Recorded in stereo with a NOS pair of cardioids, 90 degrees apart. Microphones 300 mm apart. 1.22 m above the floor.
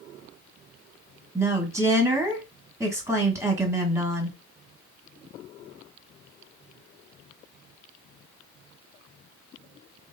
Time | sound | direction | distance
1.4 | a woman speaking | 10° right | 1.4 m